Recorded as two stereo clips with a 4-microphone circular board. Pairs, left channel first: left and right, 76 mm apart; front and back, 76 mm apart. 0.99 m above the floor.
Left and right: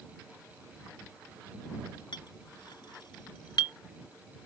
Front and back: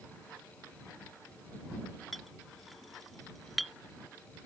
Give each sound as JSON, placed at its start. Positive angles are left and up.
{"t": 2.1, "sound": "a clink", "azimuth_deg": 90}